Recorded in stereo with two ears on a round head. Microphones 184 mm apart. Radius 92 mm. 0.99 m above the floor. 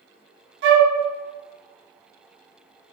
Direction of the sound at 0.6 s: 60° right (ahead or behind).